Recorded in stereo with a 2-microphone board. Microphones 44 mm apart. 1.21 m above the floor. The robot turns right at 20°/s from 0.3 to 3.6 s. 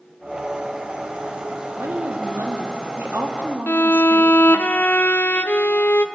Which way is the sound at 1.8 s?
90° right.